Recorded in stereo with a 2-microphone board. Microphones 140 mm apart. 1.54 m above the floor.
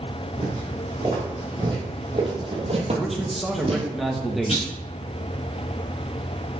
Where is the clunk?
45° left (ahead or behind), 3 m.